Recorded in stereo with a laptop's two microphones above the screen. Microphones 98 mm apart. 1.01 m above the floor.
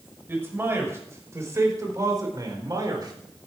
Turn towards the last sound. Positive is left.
turn(degrees=-45)  # may be behind; listen again after turning